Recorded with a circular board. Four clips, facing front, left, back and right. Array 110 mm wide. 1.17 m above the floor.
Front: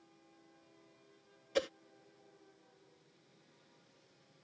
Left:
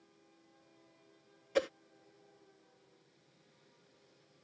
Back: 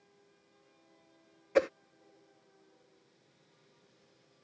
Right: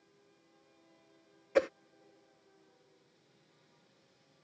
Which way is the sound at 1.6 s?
150° right.